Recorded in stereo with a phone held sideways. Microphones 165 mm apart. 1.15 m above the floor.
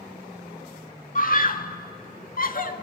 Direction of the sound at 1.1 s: 60° left (ahead or behind).